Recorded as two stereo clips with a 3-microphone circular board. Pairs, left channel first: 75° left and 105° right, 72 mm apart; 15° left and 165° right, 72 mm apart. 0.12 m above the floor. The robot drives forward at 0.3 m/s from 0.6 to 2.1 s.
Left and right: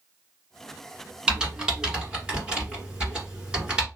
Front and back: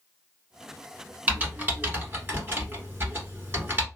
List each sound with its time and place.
1.3 s typing on a keyboard: 165° right, 1.3 m; by 3.9 s 170° right, 1.4 m